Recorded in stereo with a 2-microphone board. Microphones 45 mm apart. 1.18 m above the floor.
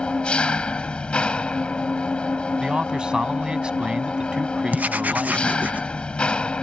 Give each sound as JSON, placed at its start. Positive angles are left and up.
{"t": 0.0, "sound": "an engine running", "side_deg": 25}
{"t": 2.6, "sound": "a man speaking", "side_deg": -20}
{"t": 4.7, "sound": "writing", "side_deg": -35}